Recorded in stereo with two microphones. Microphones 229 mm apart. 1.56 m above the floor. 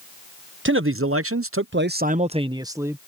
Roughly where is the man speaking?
Right.